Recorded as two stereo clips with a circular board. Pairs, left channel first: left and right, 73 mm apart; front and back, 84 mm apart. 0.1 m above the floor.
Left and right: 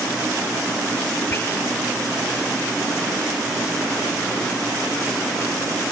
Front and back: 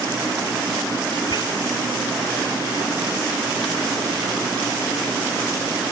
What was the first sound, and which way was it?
Whispering, 30° left.